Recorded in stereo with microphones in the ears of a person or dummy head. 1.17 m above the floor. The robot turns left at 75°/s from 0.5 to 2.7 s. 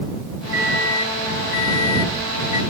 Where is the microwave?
170° right; by 2.6 s 35° left.